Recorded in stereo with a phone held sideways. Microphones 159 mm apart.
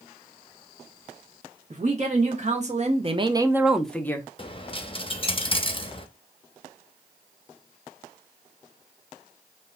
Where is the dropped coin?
35° left (ahead or behind), 0.6 m.